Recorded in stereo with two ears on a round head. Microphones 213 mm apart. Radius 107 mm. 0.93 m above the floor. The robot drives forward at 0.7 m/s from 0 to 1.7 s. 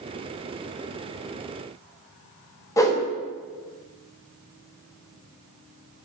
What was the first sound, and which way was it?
A whoosh, 15° left (ahead or behind).